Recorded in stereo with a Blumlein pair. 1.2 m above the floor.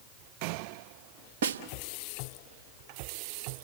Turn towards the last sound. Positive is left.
turn(degrees=-60)